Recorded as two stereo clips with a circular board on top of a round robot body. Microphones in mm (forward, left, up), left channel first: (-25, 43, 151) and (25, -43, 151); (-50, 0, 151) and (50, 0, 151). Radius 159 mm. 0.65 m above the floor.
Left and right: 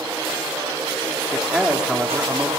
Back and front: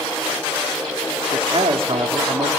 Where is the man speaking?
20° left, 2 m.